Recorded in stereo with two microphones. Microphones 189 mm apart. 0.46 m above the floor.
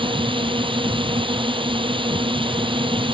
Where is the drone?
25° right (ahead or behind).